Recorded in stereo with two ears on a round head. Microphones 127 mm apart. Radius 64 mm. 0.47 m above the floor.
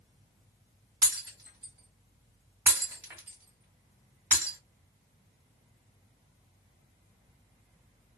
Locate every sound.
1.0 s breaking glass: 10° right (ahead or behind), 2 m